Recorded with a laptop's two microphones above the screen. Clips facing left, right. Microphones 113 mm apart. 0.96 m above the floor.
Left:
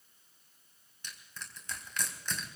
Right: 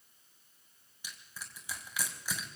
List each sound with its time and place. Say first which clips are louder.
1.0 s crushing: left 1 dB; 10° right (ahead or behind), 3.5 m